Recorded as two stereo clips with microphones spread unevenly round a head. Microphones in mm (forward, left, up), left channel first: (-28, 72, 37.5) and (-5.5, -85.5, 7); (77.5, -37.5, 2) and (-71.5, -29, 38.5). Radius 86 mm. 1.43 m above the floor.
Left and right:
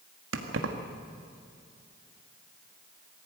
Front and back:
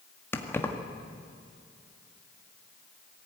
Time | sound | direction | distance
0.3 | keys jangling | 85° right | 1.8 m